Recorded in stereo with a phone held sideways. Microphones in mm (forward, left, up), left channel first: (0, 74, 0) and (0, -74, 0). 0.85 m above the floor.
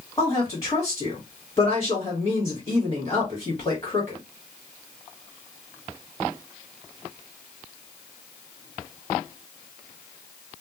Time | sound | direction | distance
0.2 | a woman speaking | 25° left (ahead or behind) | 1.4 m